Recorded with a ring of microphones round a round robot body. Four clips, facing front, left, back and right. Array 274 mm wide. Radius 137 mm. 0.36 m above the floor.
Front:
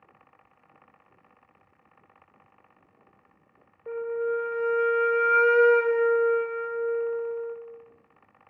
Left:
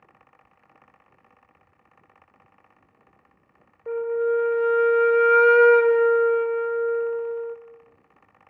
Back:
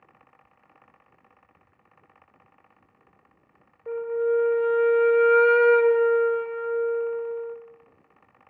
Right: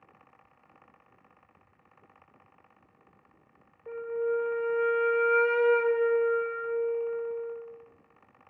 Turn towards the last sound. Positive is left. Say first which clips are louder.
# left 7 dB, back 4 dB
turn(degrees=100)